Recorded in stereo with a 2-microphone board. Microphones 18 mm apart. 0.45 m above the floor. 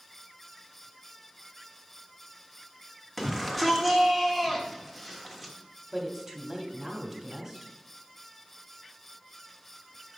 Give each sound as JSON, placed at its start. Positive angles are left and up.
{"t": 3.2, "sound": "a shout", "side_deg": 5, "distance_m": 1.2}
{"t": 5.9, "sound": "a woman speaking", "side_deg": -10, "distance_m": 1.0}